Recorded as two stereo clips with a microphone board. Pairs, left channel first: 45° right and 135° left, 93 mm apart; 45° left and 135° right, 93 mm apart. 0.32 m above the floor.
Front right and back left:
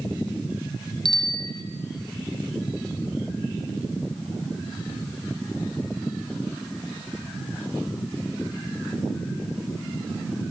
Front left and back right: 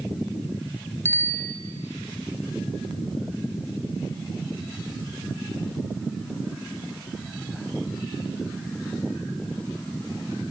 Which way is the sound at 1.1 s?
20° right.